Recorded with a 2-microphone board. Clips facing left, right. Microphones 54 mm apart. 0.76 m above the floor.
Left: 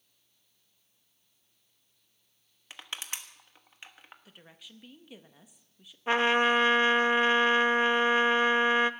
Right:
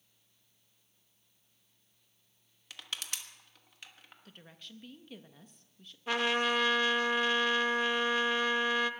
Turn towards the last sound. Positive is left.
turn(degrees=35)  # may be behind; listen again after turning